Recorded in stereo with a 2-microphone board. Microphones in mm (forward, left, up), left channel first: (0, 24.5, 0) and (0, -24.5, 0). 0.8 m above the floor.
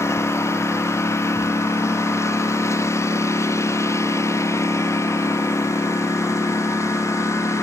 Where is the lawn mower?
75° left (ahead or behind); by 7.6 s 90° left.